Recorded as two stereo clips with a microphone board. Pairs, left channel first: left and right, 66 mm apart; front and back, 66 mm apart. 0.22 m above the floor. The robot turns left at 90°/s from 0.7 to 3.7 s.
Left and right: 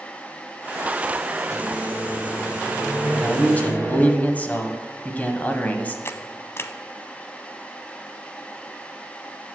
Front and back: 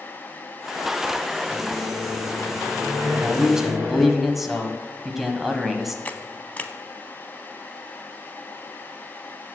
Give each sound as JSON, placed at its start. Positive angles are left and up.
{"t": 1.5, "sound": "a microwave", "azimuth_deg": -30, "distance_m": 4.5}
{"t": 3.1, "sound": "a man speaking", "azimuth_deg": 155, "distance_m": 1.1}
{"t": 6.0, "sound": "a camera shutter", "azimuth_deg": 55, "distance_m": 0.6}